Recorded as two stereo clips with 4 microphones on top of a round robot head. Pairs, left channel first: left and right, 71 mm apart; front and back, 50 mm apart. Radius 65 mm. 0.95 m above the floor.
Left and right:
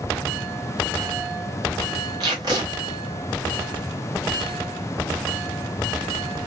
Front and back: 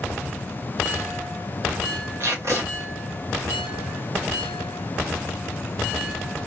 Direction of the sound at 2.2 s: 130° right.